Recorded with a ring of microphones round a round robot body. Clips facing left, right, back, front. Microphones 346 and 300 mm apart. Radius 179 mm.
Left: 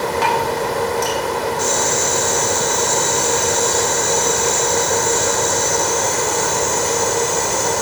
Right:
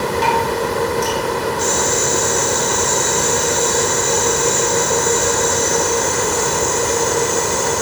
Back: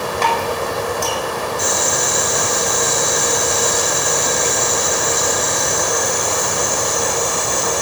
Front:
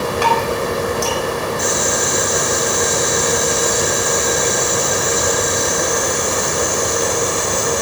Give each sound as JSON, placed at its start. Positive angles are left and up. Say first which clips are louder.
{"t": 0.2, "sound": "dripping", "louder": "right 1 dB, front 1 dB", "azimuth_deg": 80, "distance_m": 4.5}
{"t": 1.6, "sound": "boiling", "louder": "right 1 dB, front 2 dB", "azimuth_deg": 145, "distance_m": 5.5}